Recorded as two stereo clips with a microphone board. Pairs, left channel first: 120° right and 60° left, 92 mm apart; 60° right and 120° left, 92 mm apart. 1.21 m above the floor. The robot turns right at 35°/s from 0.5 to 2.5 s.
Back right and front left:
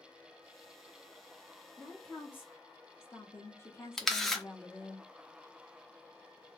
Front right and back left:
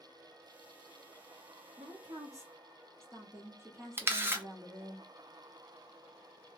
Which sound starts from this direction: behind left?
A woman speaking, at 1.8 s.